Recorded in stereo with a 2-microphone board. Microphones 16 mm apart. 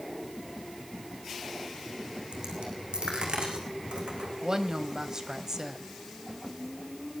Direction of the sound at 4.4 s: 40° right (ahead or behind).